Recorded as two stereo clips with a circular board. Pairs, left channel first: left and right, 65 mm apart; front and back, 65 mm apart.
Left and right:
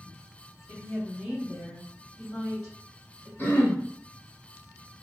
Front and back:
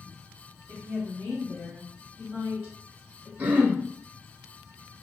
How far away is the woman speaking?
About 1.8 m.